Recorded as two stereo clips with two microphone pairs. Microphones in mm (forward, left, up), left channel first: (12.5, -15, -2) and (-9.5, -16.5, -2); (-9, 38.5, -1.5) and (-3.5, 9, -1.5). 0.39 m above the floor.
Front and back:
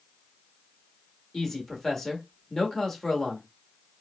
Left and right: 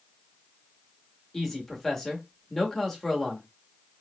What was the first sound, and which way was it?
A man speaking, 40° left.